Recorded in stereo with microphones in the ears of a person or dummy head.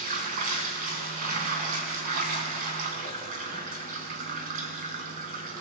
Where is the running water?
45° right (ahead or behind), 3.5 m.